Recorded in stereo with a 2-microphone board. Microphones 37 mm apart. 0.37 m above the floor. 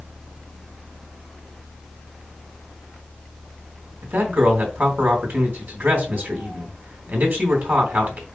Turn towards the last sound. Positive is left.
turn(degrees=-55)  # may be behind; listen again after turning